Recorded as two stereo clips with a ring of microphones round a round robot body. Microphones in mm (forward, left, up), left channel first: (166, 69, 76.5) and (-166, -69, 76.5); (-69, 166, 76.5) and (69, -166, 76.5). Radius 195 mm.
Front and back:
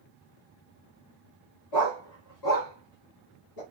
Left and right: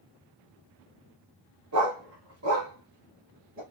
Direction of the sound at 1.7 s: 20° right.